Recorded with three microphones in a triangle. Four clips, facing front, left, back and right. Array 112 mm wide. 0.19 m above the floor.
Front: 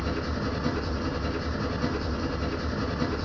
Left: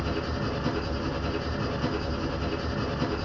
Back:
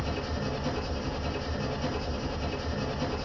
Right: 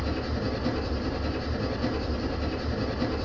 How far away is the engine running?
About 1.8 m.